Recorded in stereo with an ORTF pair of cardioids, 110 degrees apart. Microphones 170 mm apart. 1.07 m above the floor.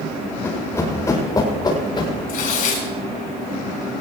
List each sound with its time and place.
0.4 s running footsteps: 15° left, 8.5 m; by 2.1 s 30° left, 7.5 m
2.3 s tearing paper: 60° left, 5 m